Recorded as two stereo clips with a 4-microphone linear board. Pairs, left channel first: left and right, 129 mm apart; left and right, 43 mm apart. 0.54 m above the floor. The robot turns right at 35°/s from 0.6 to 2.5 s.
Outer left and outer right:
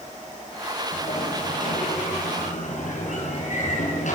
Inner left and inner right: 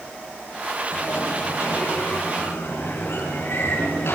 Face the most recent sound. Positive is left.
turn(degrees=115)